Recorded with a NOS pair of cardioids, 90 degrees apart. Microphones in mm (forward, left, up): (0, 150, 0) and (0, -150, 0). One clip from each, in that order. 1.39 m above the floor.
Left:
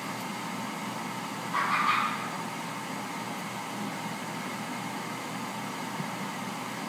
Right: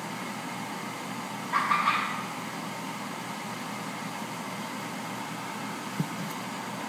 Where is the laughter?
65° right, 1.3 m.